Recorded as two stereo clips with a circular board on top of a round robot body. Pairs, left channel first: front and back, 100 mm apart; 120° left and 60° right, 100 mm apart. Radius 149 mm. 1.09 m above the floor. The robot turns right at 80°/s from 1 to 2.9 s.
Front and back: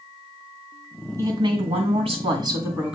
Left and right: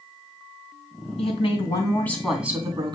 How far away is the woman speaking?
About 3 m.